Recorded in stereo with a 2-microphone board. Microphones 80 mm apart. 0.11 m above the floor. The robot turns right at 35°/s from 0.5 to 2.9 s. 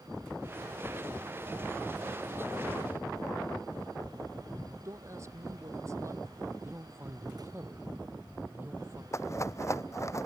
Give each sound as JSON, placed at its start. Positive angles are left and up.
{"t": 4.8, "sound": "a woman speaking", "side_deg": -40}
{"t": 6.6, "sound": "a man speaking", "side_deg": -30}
{"t": 9.1, "sound": "a rattle", "side_deg": 40}